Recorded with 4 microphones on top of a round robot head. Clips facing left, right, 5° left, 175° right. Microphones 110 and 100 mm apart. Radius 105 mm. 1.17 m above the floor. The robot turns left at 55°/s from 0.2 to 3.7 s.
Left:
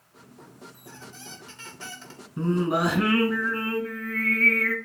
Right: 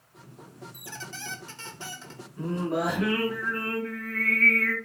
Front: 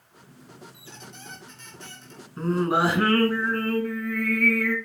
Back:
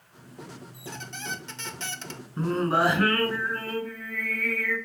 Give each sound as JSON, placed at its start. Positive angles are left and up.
{"t": 0.7, "sound": "a squeak", "azimuth_deg": -110, "distance_m": 0.7}
{"t": 2.4, "sound": "singing", "azimuth_deg": 100, "distance_m": 5.0}